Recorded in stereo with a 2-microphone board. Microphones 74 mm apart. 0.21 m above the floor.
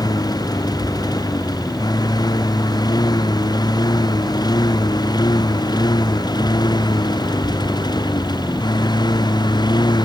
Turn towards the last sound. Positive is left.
turn(degrees=70)  # may be behind; listen again after turning